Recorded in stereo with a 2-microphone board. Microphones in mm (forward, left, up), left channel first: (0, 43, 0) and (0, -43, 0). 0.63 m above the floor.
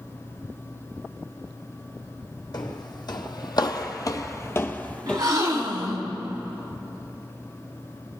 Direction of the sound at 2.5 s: 60° left (ahead or behind).